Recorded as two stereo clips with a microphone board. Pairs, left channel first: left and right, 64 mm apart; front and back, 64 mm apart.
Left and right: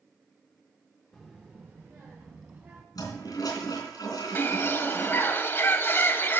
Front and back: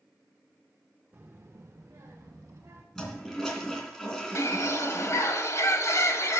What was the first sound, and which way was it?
A child speaking, 170° left.